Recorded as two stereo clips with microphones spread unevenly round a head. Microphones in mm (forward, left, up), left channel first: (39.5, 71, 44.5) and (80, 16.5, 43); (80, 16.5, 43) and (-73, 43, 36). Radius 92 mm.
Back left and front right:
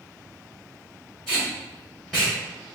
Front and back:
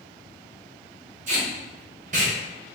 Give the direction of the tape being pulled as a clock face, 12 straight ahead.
5 o'clock.